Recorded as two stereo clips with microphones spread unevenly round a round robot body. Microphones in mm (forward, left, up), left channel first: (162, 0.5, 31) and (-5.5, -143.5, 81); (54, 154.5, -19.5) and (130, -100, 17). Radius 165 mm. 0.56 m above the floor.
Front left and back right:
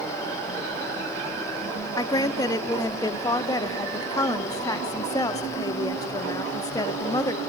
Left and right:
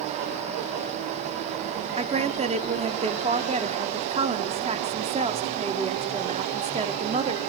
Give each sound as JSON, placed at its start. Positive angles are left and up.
{"t": 2.0, "sound": "a woman speaking", "azimuth_deg": -10, "distance_m": 1.3}